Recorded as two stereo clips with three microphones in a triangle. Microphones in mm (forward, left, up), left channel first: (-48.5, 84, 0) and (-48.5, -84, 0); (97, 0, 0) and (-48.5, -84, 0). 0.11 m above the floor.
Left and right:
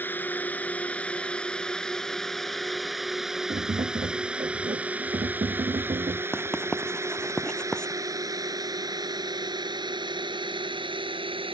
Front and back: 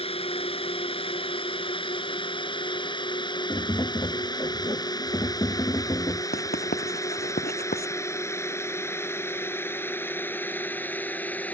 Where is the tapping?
40° right.